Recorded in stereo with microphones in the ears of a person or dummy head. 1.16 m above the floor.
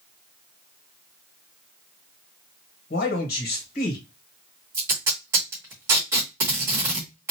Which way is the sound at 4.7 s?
10° right (ahead or behind).